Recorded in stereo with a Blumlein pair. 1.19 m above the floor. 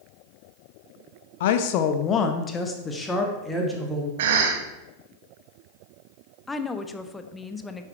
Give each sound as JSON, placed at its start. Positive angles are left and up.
{"t": 1.4, "sound": "a woman speaking", "azimuth_deg": 55, "distance_m": 1.2}
{"t": 4.2, "sound": "a cough", "azimuth_deg": -55, "distance_m": 2.0}
{"t": 6.5, "sound": "a woman speaking", "azimuth_deg": 10, "distance_m": 1.0}